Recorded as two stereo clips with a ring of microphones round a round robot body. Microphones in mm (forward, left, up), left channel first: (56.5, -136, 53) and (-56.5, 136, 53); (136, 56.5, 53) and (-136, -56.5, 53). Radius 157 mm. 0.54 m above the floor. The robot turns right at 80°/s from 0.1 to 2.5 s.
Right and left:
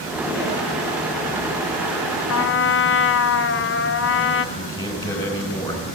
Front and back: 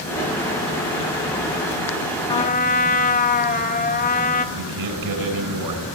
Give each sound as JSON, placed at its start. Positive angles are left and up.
{"t": 2.3, "sound": "a trumpet", "azimuth_deg": -50, "distance_m": 1.6}
{"t": 4.5, "sound": "a man speaking", "azimuth_deg": -145, "distance_m": 6.5}